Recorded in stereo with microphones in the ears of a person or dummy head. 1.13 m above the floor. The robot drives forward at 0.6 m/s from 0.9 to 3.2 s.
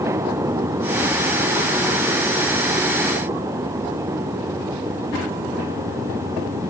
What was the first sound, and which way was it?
Only background noise.